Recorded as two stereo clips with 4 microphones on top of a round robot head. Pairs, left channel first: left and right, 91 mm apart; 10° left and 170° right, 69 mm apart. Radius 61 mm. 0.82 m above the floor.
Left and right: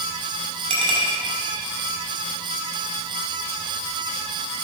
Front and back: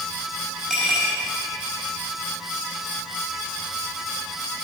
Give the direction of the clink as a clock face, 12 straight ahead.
2 o'clock.